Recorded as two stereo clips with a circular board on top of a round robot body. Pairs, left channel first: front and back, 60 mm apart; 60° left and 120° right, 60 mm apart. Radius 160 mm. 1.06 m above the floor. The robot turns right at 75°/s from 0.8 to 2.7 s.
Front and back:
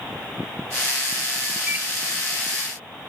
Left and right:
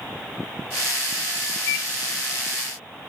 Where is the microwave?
105° left, 1.2 m; by 1.9 s 120° left, 1.2 m.